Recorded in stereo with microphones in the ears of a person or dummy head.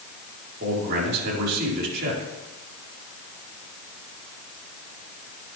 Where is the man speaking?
50° right (ahead or behind), 3.5 m.